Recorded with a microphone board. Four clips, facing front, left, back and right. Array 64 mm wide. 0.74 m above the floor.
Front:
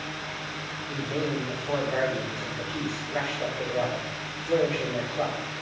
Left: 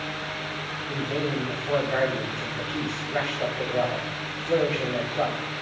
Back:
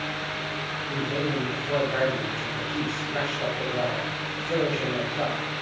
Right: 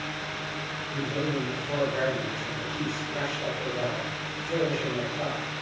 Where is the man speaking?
95° left, 4.5 m.